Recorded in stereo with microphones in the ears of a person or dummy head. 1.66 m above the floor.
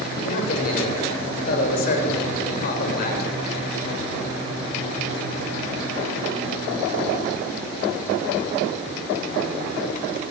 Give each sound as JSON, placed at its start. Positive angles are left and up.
{"t": 0.2, "sound": "a man speaking", "side_deg": 50, "distance_m": 8.0}